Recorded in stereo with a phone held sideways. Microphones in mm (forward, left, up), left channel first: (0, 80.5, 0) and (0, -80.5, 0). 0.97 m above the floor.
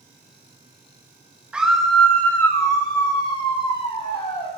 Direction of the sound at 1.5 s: 5° right (ahead or behind).